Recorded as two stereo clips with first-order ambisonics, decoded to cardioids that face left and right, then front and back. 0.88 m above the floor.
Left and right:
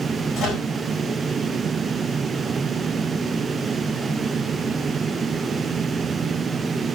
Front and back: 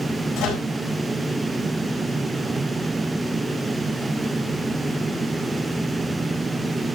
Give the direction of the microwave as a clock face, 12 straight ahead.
11 o'clock.